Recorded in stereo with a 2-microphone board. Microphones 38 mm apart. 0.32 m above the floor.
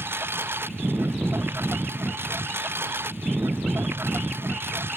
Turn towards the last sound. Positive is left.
turn(degrees=-85)